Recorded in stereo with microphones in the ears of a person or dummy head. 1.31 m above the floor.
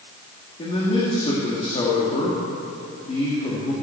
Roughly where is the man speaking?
Left.